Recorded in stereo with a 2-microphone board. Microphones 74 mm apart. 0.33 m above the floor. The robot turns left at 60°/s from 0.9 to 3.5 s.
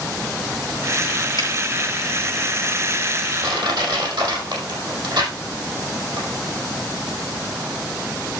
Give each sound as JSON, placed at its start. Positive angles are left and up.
{"t": 1.4, "sound": "a finger snap", "side_deg": 60, "distance_m": 7.0}
{"t": 3.4, "sound": "crushing", "side_deg": -80, "distance_m": 4.5}